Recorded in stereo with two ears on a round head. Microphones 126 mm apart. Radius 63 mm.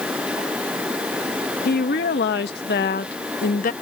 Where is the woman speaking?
85° left; by 3.7 s 55° left (ahead or behind).